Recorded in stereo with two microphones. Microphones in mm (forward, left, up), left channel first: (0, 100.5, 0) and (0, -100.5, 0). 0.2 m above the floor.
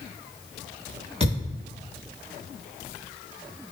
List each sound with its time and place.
1.2 s a thud: 30° right (ahead or behind), 3.5 m